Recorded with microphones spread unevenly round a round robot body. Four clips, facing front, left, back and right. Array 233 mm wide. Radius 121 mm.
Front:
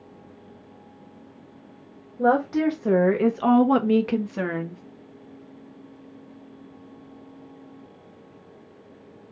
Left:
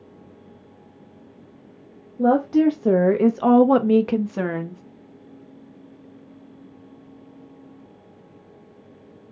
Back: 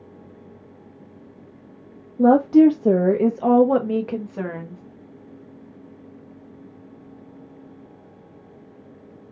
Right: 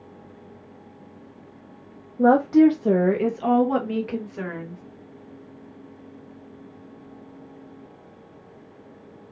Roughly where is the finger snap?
No finger snap in this recording.